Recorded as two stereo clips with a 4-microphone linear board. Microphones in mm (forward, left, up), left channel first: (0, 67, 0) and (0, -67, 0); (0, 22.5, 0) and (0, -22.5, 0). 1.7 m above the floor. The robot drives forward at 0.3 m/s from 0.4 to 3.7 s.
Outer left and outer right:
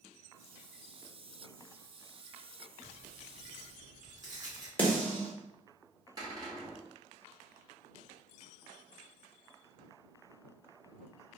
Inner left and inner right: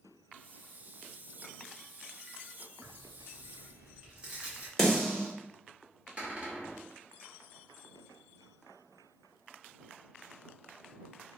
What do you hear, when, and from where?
2.8 s tearing paper: 30° right (ahead or behind), 1.1 m
4.8 s a snare drum: 10° left (ahead or behind), 1.3 m
6.2 s a cupboard door: 30° right (ahead or behind), 1.3 m